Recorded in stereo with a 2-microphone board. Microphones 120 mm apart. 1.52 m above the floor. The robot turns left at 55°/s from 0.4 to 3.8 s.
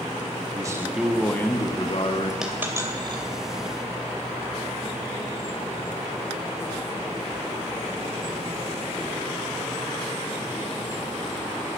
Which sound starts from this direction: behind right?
A man speaking, at 0.5 s.